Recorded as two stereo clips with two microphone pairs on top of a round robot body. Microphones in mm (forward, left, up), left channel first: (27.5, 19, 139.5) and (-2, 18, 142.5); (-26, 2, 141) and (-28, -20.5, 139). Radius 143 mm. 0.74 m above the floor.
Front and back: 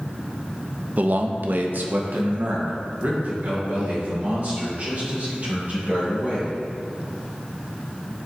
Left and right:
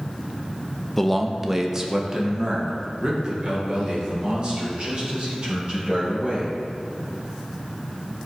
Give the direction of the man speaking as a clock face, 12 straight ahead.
6 o'clock.